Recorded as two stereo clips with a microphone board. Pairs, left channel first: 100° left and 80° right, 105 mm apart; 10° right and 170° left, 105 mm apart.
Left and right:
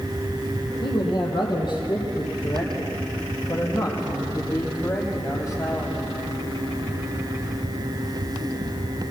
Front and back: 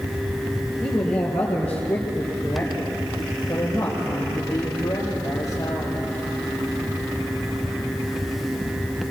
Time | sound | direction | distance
0.8 | a man speaking | 70° left | 5 m